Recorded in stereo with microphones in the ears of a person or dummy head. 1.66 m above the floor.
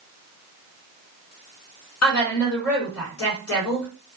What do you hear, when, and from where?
2.0 s a woman speaking: 75° left (ahead or behind), 1.9 m